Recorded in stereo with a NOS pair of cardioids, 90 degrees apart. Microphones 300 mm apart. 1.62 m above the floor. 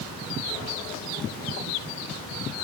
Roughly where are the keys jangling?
No keys jangling in this recording.